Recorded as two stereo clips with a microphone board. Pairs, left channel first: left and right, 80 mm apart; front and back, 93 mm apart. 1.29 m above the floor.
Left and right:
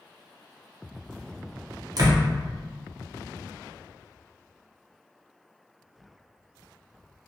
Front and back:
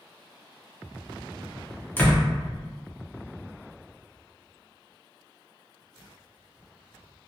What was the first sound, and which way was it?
A door slam, 65° right.